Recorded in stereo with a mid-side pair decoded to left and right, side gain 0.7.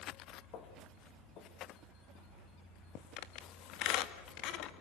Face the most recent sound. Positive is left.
turn(degrees=60)